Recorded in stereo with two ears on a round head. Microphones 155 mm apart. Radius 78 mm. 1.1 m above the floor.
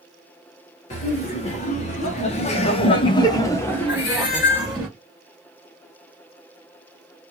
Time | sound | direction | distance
0.9 | laughter | 40° left (ahead or behind) | 1.4 m
3.9 | a cat meowing | 65° left (ahead or behind) | 1.8 m